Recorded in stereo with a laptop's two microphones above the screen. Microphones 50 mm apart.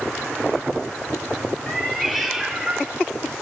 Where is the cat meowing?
5° left (ahead or behind), 1.0 m; by 3.3 s 15° right (ahead or behind), 1.7 m.